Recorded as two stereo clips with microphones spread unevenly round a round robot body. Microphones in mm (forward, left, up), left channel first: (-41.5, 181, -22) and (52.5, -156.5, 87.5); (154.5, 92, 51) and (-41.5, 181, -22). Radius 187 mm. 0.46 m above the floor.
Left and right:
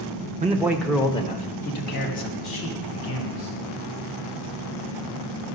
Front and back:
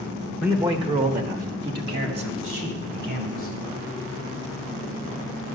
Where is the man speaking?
155° right, 0.9 m; by 3.5 s 145° left, 3 m.